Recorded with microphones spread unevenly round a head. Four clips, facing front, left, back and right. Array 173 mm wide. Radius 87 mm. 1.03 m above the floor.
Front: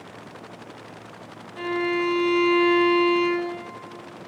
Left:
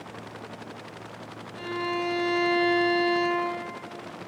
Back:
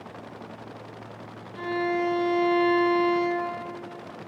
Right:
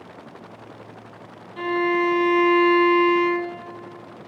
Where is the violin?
65° right, 1.0 m.